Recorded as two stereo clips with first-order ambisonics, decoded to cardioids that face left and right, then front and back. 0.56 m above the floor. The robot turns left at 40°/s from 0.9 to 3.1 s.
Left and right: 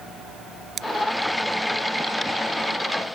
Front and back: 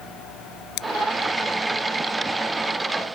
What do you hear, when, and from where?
0.8 s scissors: 30° right